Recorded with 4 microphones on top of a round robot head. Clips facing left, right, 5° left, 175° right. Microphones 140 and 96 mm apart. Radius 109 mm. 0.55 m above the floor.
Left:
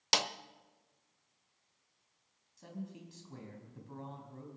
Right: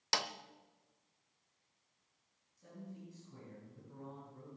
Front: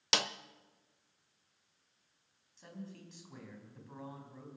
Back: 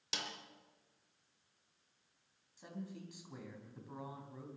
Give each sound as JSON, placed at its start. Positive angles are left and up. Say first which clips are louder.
{"t": 0.1, "sound": "a snare drum", "louder": "left 4 dB, front 10 dB", "azimuth_deg": 20, "distance_m": 0.8}
{"t": 2.6, "sound": "a man speaking", "louder": "left 5 dB, back 1 dB", "azimuth_deg": 110, "distance_m": 3.5}